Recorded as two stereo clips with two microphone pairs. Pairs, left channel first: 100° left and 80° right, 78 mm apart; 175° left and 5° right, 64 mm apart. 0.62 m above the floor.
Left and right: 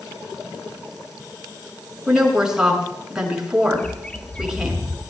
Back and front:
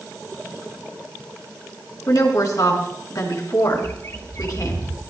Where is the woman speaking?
160° right, 6.5 m.